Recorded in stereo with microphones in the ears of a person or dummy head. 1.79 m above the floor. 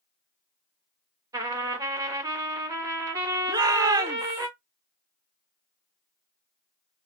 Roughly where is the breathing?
No breathing in this recording.